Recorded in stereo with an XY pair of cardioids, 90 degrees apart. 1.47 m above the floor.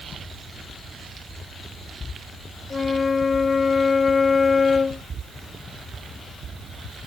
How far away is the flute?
About 0.7 m.